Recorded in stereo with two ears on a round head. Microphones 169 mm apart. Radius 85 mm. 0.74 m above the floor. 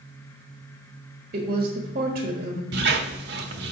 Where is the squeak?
60° right (ahead or behind), 1.1 m.